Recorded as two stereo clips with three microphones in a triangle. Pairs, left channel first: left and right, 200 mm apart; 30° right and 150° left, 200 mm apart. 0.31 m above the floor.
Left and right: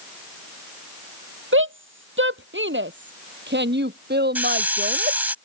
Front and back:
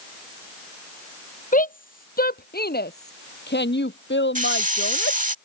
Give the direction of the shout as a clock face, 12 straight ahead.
3 o'clock.